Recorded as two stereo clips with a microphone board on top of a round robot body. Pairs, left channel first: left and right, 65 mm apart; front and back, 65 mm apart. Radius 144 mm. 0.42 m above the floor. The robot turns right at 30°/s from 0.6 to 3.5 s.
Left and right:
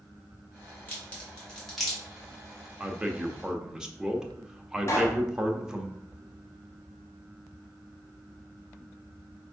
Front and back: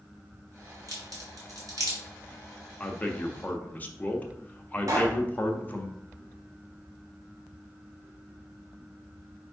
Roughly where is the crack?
Behind left.